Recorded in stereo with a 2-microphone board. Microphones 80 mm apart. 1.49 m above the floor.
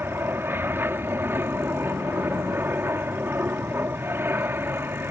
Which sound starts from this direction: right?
An aircraft, at 0.0 s.